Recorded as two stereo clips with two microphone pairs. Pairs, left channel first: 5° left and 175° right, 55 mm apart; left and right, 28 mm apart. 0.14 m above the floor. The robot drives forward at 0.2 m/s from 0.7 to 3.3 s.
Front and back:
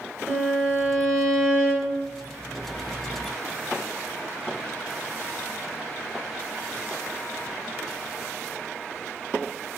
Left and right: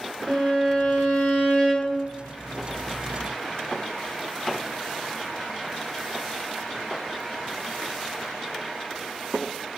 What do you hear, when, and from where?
0.3 s a violin: 95° left, 1.8 m; by 2.0 s 110° left, 1.8 m